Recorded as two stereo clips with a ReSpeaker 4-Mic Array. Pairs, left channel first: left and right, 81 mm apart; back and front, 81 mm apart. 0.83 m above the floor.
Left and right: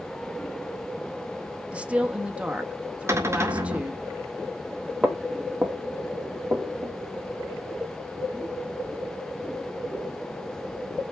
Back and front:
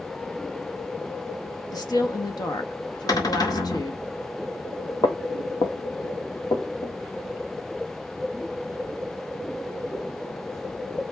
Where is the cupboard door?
145° right, 1.9 m.